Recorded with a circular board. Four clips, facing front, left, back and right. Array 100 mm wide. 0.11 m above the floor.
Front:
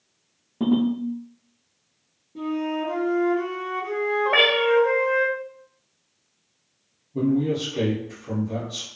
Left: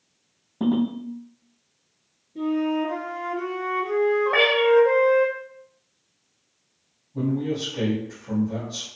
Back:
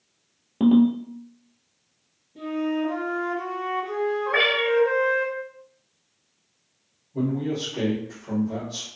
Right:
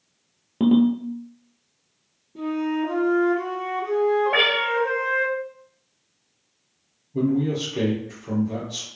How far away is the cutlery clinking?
I don't hear cutlery clinking.